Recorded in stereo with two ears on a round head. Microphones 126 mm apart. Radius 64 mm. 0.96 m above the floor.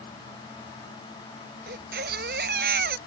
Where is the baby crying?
80° right.